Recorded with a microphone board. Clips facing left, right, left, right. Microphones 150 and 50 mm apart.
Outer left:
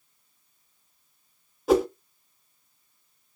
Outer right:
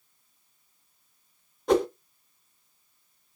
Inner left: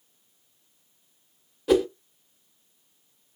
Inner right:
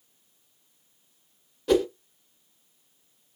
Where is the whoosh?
5° left (ahead or behind), 0.5 m.